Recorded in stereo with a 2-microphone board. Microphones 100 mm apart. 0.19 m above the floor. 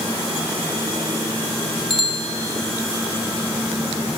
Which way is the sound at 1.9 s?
55° left (ahead or behind).